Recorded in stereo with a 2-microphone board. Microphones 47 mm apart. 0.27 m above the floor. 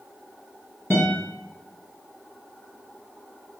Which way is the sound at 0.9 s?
50° left (ahead or behind).